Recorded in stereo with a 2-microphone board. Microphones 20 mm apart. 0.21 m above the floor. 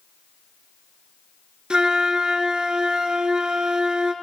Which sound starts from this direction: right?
A flute, at 1.7 s.